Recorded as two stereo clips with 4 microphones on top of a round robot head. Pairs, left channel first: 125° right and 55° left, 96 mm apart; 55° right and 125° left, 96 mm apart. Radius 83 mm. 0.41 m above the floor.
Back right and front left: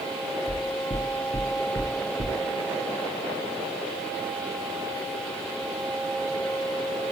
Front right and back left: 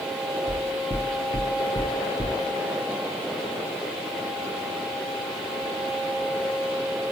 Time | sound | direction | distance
0.5 | knocking | 110° right | 4 m